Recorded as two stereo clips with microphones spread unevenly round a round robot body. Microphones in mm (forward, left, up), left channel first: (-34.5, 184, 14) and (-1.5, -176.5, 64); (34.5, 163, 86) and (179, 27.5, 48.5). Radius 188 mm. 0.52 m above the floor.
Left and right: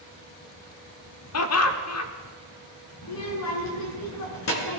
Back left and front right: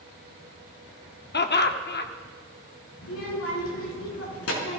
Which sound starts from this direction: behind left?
A child speaking, at 3.0 s.